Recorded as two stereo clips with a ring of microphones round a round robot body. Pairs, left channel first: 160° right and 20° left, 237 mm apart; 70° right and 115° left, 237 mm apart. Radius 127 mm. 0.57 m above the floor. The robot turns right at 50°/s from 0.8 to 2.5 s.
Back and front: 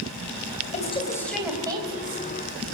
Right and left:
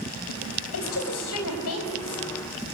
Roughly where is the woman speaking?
Right.